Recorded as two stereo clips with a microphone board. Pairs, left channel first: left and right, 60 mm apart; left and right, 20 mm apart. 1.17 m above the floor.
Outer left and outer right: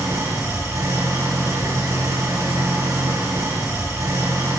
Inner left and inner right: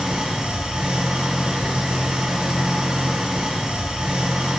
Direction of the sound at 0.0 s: 65° right (ahead or behind).